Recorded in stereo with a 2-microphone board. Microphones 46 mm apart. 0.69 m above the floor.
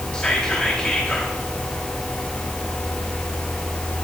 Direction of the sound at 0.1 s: 20° left (ahead or behind).